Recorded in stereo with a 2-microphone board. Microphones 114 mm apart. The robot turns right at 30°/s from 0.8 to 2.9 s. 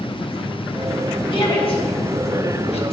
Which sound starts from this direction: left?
A shout, at 1.3 s.